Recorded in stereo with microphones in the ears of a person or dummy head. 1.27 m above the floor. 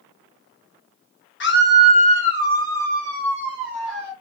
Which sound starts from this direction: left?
A scream, at 1.4 s.